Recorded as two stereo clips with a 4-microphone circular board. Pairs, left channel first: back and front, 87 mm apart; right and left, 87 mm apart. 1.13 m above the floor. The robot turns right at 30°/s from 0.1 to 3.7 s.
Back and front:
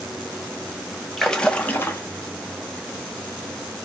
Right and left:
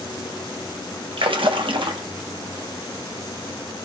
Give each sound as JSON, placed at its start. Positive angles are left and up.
{"t": 1.2, "sound": "a splash", "azimuth_deg": 95, "distance_m": 0.7}